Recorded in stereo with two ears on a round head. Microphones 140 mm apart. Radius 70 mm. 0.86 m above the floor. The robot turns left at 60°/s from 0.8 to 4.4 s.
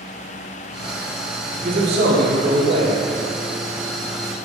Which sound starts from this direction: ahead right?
A man speaking, at 1.6 s.